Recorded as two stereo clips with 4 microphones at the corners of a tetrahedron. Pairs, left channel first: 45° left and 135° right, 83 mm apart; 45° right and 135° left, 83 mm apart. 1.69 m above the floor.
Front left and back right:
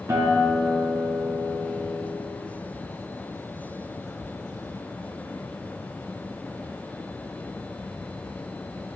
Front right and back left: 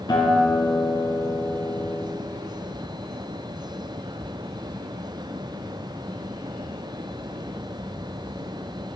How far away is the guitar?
About 3 m.